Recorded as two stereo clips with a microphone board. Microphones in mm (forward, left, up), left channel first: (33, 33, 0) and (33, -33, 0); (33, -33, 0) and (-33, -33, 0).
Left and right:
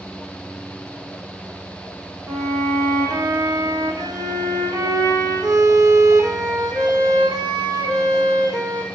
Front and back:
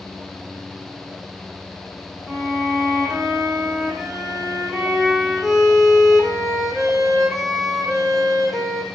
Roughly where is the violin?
Right.